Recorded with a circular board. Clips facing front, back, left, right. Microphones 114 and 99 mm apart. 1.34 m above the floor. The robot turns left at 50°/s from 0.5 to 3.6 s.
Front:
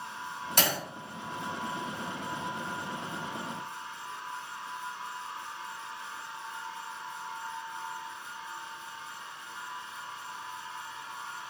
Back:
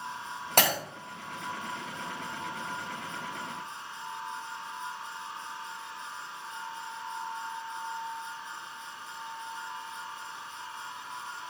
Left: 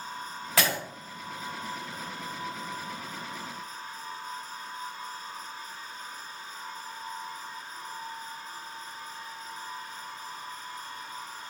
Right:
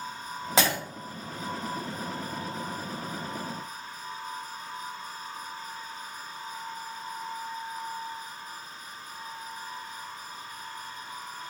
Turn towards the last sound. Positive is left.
turn(degrees=55)